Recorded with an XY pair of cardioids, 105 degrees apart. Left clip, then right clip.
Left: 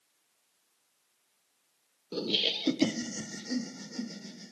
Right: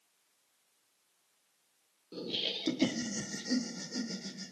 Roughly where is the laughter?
Ahead left.